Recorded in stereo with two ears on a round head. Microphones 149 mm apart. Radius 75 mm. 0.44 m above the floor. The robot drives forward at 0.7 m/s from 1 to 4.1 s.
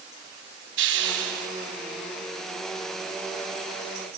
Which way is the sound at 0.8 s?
70° right (ahead or behind).